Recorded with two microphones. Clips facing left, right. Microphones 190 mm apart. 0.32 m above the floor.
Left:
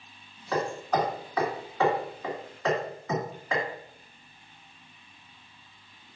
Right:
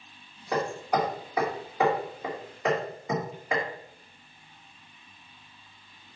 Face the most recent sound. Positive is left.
turn(degrees=-15)  # may be behind; listen again after turning